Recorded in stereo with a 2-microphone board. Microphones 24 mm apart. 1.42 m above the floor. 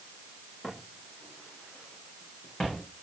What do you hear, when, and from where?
0.6 s footsteps: 45° left (ahead or behind), 6 m; by 2.9 s 55° left (ahead or behind), 5 m